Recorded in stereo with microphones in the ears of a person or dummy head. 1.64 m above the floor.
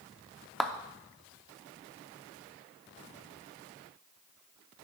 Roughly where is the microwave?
I don't hear a microwave.